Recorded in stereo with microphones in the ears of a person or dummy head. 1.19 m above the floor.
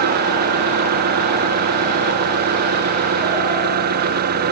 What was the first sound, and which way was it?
An engine running, 50° right (ahead or behind).